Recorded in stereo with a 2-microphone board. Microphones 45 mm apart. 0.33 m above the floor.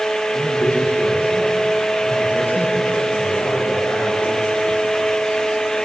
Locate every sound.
0.3 s a man speaking: 55° left (ahead or behind), 8.5 m